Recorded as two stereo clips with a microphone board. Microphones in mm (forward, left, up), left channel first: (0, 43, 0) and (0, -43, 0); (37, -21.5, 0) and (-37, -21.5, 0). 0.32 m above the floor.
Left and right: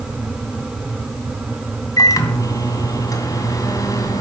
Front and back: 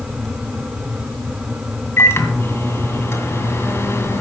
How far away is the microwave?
About 2 m.